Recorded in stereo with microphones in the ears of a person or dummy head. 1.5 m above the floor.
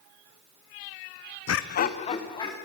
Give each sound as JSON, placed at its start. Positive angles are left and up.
{"t": 1.5, "sound": "laughter", "side_deg": 75, "distance_m": 0.6}